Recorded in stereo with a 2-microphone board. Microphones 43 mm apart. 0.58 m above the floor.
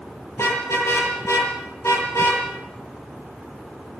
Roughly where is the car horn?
Left.